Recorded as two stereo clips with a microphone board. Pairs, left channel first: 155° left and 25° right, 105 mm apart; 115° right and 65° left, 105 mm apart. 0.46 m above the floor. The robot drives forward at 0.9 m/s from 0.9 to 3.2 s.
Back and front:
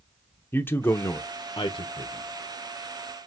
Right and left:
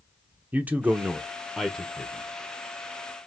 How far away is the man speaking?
About 0.8 m.